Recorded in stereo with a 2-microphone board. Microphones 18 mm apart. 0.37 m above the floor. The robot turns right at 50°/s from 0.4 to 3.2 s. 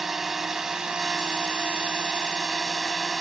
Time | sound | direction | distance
0.0 | a drone | 165° right | ?